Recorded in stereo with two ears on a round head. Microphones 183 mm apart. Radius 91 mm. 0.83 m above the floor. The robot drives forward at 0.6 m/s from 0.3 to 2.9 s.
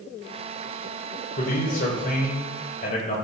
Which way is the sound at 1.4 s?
45° left (ahead or behind).